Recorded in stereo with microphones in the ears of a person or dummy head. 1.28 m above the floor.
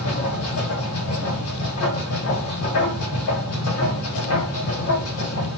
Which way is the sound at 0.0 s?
80° left.